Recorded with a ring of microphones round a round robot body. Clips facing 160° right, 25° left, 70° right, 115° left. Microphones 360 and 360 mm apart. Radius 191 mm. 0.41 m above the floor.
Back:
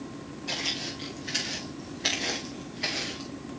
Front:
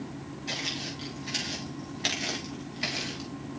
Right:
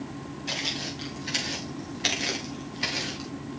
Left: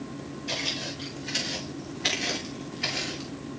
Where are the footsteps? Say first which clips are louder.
Back 1 dB, right 1 dB; 50° right, 6 m; by 3.3 s 35° right, 4.5 m.